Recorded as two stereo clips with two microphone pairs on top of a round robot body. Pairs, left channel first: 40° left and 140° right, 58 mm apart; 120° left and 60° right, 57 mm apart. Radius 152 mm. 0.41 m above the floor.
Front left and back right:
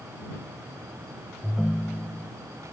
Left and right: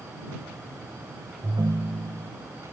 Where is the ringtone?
45° right.